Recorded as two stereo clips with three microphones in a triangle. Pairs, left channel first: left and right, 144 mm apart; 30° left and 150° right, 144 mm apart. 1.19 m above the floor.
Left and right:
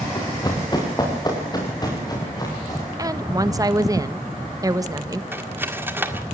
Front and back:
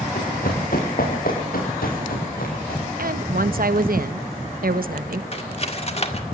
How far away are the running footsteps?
About 5 m.